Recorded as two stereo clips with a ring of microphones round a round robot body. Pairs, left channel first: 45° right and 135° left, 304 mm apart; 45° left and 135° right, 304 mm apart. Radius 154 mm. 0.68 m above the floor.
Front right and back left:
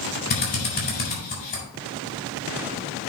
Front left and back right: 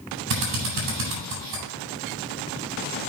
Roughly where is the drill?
Right.